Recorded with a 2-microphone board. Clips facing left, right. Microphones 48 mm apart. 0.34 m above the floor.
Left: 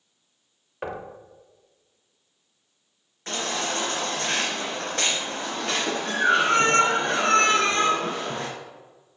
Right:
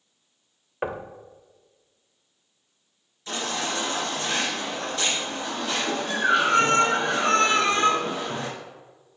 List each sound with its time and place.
0.8 s knocking: 20° right (ahead or behind), 0.8 m
3.3 s a baby crying: 50° left (ahead or behind), 3.5 m